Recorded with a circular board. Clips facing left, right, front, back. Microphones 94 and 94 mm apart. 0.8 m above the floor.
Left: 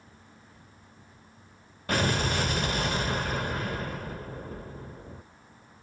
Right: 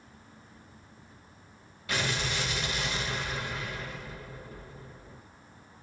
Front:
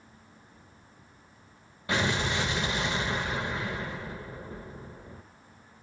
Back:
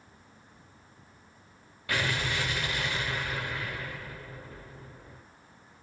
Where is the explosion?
60° left, 0.7 m.